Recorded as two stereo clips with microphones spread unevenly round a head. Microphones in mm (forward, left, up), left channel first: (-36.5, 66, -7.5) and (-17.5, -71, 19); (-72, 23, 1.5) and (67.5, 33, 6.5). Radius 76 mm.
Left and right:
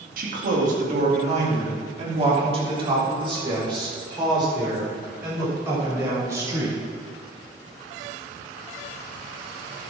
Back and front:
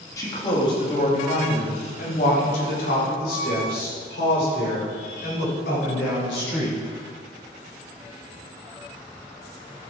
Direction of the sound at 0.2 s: 105° right.